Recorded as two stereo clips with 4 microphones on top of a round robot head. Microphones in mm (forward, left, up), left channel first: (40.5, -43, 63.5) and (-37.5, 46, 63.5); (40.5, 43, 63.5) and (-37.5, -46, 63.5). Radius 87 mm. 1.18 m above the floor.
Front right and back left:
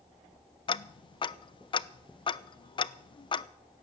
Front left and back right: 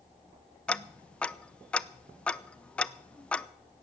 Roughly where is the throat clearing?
No throat clearing in this recording.